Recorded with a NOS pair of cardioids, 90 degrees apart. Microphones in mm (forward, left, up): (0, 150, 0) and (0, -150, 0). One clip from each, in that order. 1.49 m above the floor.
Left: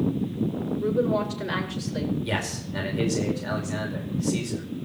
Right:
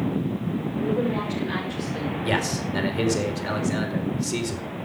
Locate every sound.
0.8 s a woman speaking: 20° left, 7 m
2.2 s a man speaking: 30° right, 4.5 m